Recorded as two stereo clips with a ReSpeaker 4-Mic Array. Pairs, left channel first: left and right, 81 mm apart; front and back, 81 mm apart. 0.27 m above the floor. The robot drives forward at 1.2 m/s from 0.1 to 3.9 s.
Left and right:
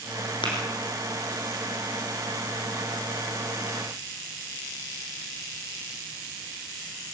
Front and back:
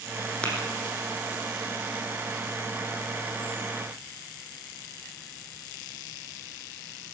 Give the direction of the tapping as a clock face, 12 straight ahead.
9 o'clock.